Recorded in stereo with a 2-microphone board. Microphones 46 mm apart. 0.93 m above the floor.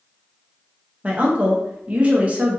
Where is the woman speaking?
30° right (ahead or behind), 1.0 m.